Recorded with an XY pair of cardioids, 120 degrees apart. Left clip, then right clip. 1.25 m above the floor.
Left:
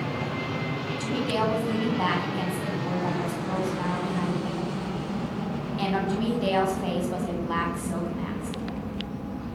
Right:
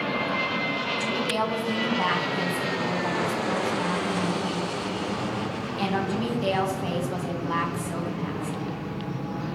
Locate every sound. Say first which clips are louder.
1.0 s a woman speaking: left 3 dB; straight ahead, 9 m